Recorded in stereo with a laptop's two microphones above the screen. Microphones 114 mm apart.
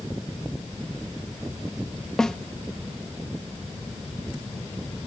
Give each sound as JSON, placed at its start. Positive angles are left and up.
{"t": 2.2, "sound": "a snare drum", "side_deg": 5}